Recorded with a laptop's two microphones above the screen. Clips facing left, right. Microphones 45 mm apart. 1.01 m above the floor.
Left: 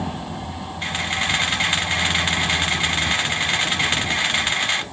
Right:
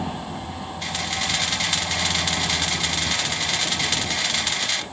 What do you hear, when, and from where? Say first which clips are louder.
0.8 s a camera shutter: left 4 dB; 30° left (ahead or behind), 1.2 m